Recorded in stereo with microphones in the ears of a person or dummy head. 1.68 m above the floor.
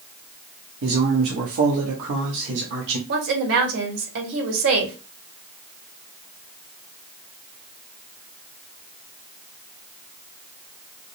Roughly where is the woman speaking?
Right.